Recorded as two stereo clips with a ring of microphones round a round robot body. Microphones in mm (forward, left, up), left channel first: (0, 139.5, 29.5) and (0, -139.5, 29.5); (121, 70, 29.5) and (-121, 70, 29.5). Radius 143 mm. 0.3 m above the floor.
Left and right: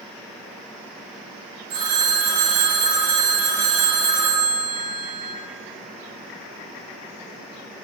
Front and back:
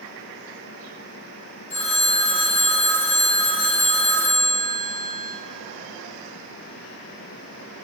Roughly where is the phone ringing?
Ahead right.